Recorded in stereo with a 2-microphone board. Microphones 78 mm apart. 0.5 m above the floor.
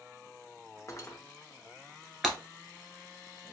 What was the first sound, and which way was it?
Cutlery clinking, 40° left (ahead or behind).